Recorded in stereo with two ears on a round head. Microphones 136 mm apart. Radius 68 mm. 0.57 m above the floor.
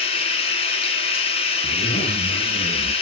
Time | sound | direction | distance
0.0 | running water | 40° left (ahead or behind) | 3 m
1.6 | a zipper | 30° left (ahead or behind) | 2.5 m